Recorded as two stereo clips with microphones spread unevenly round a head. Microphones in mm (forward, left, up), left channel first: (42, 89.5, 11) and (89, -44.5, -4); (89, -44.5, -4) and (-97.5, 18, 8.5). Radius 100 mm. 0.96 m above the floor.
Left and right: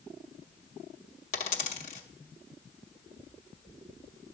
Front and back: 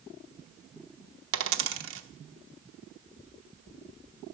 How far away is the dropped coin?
About 0.8 m.